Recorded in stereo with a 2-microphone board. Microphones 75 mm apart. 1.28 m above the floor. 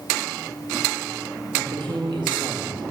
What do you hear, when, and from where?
1.5 s a woman speaking: 85° right, 1.7 m